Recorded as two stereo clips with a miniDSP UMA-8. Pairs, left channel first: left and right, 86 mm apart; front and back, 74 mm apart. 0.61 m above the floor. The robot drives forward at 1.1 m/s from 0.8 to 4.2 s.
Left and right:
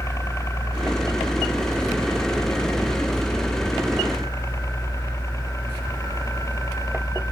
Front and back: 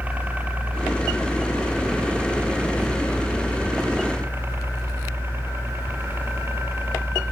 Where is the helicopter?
120° left; by 7.3 s 130° left.